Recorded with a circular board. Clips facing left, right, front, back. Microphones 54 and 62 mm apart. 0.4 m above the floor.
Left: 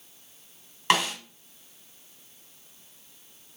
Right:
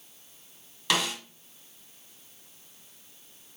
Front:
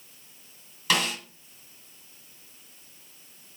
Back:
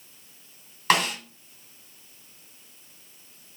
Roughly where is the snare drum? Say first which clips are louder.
Left 4 dB, back 4 dB; behind left.